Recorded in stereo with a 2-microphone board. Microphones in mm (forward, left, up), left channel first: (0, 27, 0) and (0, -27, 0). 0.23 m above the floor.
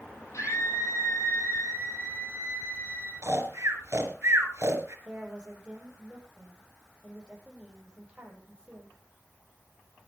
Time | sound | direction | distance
0.3 | a scream | 65° left (ahead or behind) | 8 m
3.2 | snoring | 50° right (ahead or behind) | 4.5 m
5.0 | a woman speaking | 20° right (ahead or behind) | 7.5 m